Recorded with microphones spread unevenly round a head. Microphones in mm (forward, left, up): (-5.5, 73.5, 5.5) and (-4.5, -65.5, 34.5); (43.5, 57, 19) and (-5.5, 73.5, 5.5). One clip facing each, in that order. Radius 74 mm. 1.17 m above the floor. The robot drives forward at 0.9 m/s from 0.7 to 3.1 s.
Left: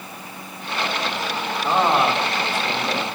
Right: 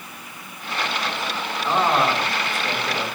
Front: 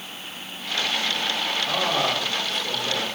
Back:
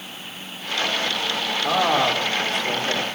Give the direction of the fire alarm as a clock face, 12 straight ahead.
I don't hear a fire alarm.